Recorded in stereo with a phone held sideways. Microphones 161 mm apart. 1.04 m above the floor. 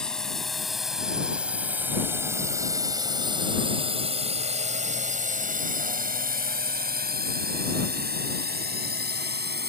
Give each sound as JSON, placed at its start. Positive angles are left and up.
{"t": 0.0, "sound": "a drone", "side_deg": 5}